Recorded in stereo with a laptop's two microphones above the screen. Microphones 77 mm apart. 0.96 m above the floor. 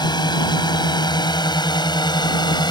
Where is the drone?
70° left (ahead or behind).